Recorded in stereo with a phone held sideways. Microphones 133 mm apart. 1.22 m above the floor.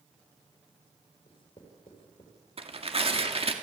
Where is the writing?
45° left (ahead or behind), 4.5 m.